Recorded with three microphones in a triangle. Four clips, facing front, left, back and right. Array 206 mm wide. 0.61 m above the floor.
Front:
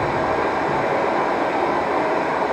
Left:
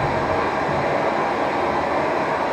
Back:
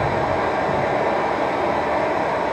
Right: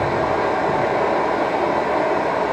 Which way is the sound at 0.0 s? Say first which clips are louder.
Right 1 dB, even; 90° right.